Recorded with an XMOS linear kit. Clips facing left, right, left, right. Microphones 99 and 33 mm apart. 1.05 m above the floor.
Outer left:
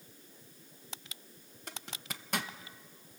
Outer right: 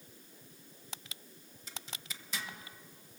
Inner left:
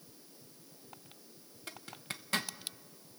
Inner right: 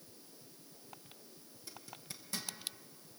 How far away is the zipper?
About 1.0 m.